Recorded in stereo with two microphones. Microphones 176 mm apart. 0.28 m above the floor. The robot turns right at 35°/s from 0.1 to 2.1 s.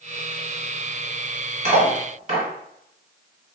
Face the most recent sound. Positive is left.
turn(degrees=-45)  # may be behind; listen again after turning